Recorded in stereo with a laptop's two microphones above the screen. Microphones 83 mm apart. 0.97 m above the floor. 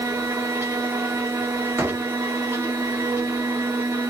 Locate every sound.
0.0 s a machine running: 25° right (ahead or behind), 1.1 m
1.8 s a door slam: 25° right (ahead or behind), 2.0 m